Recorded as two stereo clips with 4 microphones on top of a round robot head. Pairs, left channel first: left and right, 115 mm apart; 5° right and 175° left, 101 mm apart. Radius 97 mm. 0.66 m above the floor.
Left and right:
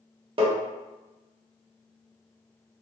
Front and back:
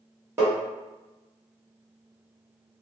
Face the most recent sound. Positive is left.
turn(degrees=-120)